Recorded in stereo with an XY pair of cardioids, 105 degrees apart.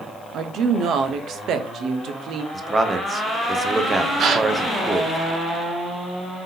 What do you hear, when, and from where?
0.3 s a woman speaking: 65° right, 0.7 m
2.5 s a man speaking: 30° right, 0.7 m
4.2 s a gasp: 60° right, 0.6 m